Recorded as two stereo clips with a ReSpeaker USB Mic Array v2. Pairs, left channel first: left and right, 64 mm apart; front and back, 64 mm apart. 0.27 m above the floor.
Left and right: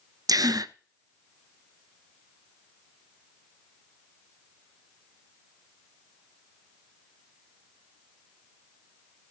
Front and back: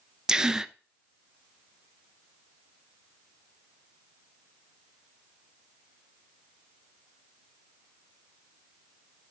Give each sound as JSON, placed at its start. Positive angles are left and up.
{"t": 0.3, "sound": "a gasp", "azimuth_deg": -100, "distance_m": 0.6}